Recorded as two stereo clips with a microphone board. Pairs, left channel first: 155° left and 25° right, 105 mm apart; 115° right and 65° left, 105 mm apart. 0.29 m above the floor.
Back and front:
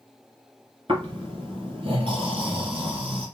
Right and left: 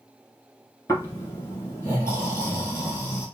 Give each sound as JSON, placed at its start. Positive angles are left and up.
{"t": 0.9, "sound": "snoring", "azimuth_deg": -55, "distance_m": 2.5}